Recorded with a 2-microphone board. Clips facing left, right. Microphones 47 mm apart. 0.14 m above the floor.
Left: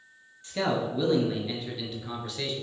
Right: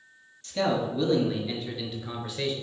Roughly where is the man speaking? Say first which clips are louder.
Right 1 dB; centre.